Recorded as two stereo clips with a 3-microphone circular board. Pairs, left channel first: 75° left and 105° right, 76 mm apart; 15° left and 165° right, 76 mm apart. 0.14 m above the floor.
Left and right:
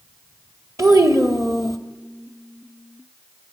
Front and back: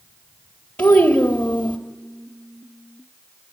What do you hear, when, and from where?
0.8 s a child speaking: 55° right, 2.0 m